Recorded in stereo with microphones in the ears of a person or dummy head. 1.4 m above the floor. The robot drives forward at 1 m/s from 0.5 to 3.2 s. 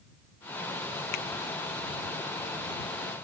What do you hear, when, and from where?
1.1 s a finger snap: 60° left (ahead or behind)